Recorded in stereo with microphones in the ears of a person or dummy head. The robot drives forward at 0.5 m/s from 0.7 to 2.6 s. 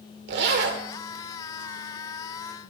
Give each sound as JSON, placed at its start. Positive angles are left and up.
{"t": 0.3, "sound": "a zipper", "side_deg": -60, "distance_m": 2.0}